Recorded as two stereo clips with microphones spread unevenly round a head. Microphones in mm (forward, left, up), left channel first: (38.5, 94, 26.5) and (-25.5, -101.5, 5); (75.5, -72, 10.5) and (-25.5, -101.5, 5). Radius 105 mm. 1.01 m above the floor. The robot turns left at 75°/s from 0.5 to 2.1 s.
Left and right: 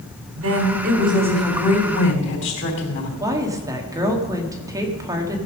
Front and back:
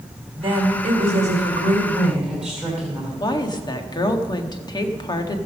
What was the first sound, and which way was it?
A woman speaking, 130° right.